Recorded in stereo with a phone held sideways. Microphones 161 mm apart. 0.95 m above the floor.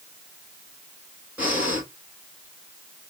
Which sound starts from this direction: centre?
Breathing, at 1.4 s.